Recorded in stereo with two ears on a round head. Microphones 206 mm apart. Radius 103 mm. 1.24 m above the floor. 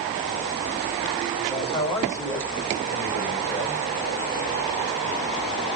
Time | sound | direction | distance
1.5 | a man speaking | 15° left (ahead or behind) | 5.5 m